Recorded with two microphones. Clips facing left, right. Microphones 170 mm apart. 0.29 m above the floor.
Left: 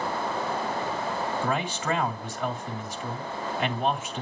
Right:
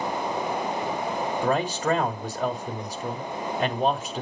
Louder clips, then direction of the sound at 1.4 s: Right 4 dB; 40° right (ahead or behind).